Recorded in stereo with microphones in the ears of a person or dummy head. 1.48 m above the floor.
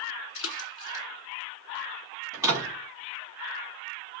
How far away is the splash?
About 2 m.